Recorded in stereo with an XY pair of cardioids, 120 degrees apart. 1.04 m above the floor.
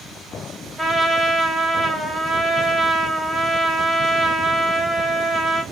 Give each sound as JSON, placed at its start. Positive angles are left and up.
{"t": 0.8, "sound": "a trumpet", "azimuth_deg": -5, "distance_m": 0.7}